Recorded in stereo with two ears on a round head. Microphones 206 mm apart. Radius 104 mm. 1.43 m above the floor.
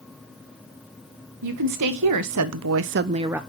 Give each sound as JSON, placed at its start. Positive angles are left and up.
{"t": 1.4, "sound": "a woman speaking", "side_deg": -80, "distance_m": 1.6}